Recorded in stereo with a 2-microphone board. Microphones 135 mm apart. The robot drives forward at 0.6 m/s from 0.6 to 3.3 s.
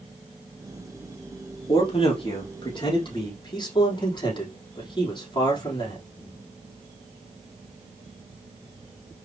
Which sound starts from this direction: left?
A man speaking, at 1.7 s.